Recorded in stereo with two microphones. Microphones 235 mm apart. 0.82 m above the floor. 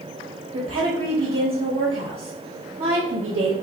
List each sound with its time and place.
0.5 s a woman speaking: 60° right (ahead or behind), 1.1 m